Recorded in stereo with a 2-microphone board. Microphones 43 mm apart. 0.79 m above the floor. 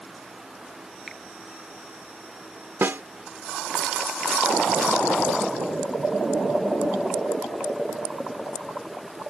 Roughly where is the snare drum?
Right.